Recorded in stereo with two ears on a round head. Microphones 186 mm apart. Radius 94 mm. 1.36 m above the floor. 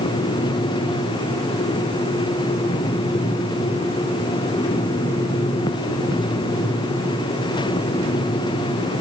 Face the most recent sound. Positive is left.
No sound to turn to.